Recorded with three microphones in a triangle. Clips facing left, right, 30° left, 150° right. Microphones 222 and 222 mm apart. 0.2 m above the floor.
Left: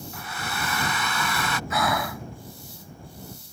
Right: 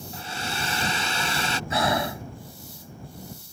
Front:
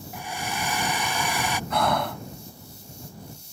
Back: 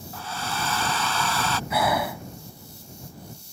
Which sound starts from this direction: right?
Breathing, at 1.7 s.